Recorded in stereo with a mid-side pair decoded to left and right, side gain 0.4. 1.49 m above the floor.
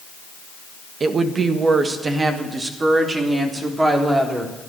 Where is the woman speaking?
55° right, 1.5 m; by 4.5 s 30° right, 3.5 m.